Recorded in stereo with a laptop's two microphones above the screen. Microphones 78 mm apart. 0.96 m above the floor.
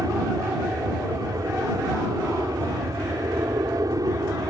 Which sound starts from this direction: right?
An aircraft, at 0.0 s.